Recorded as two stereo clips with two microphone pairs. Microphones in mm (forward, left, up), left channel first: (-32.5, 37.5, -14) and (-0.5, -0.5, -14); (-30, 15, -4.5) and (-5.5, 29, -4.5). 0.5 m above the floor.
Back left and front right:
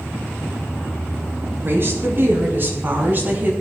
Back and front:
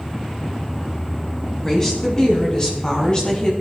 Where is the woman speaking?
85° right, 5.5 m; by 3.5 s 95° right, 4.5 m.